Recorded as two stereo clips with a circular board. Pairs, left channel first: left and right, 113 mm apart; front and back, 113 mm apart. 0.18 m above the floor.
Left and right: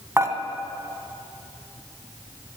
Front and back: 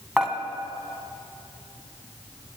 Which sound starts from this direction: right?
Dishes clattering, at 0.2 s.